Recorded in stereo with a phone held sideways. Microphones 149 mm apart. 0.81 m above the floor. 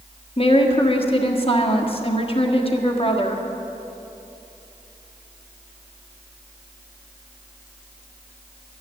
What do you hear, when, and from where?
0.4 s a woman speaking: 40° left (ahead or behind), 1.4 m